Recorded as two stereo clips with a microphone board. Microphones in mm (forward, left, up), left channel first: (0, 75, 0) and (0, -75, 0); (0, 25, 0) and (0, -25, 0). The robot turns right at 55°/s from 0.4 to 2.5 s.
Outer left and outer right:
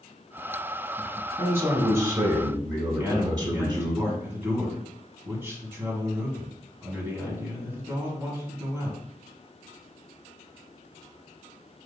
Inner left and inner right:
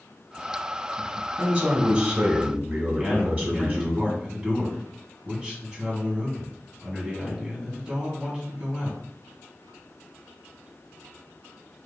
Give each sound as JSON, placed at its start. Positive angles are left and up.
{"t": 1.4, "sound": "a man speaking", "side_deg": -15, "distance_m": 1.1}
{"t": 2.9, "sound": "a man speaking", "side_deg": -15, "distance_m": 1.7}